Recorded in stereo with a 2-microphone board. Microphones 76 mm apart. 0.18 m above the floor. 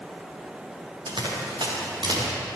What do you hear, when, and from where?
1.1 s running footsteps: 85° right, 5 m; by 2.3 s 70° right (ahead or behind), 5 m